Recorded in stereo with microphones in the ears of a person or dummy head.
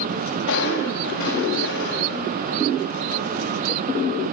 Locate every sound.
0.5 s crushing: 65° left (ahead or behind), 7 m